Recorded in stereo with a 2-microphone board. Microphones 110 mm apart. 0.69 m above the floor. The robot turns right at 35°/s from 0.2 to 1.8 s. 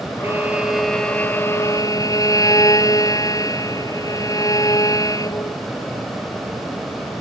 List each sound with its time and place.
0.2 s a violin: 20° right; by 5.6 s 35° left